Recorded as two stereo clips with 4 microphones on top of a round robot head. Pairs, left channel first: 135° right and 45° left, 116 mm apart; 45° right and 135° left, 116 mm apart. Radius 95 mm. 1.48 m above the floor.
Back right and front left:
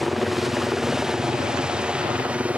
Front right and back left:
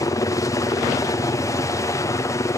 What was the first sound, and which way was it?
A helicopter, 45° right.